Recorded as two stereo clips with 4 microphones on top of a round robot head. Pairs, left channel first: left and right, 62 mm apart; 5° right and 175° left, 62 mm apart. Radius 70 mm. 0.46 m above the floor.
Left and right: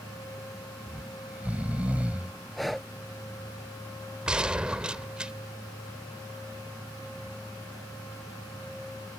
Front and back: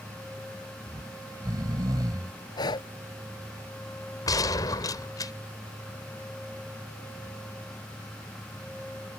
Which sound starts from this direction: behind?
Snoring, at 0.9 s.